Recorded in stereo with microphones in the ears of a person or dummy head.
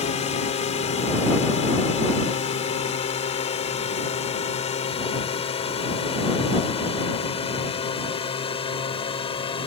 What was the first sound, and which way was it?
A drone, 40° left (ahead or behind).